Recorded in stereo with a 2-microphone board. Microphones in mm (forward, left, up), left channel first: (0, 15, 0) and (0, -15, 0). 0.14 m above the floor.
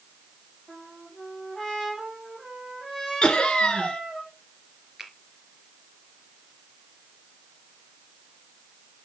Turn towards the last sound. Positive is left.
turn(degrees=-20)  # may be behind; listen again after turning